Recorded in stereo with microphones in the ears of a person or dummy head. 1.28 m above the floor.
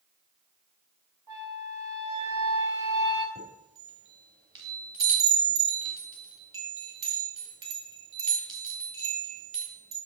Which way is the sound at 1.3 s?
15° right (ahead or behind).